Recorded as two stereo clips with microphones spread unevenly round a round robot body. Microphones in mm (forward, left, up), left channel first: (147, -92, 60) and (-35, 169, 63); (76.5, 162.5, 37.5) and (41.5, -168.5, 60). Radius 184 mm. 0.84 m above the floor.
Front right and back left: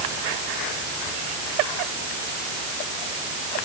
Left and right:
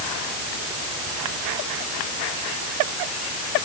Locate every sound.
Only background noise.